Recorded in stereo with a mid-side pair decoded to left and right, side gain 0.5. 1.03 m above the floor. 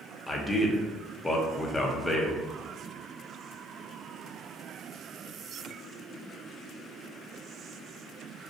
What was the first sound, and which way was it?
A man speaking, 15° left.